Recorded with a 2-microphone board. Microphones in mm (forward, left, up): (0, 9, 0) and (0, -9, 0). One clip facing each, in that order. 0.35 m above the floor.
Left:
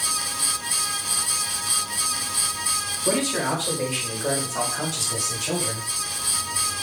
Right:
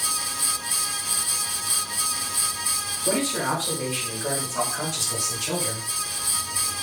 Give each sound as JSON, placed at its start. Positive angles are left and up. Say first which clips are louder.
{"t": 3.0, "sound": "a man speaking", "louder": "left 1 dB", "side_deg": 30, "distance_m": 1.7}